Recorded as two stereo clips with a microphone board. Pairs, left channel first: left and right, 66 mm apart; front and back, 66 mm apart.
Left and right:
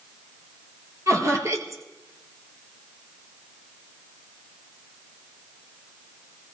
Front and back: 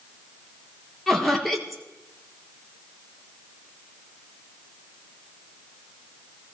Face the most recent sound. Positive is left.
turn(degrees=-90)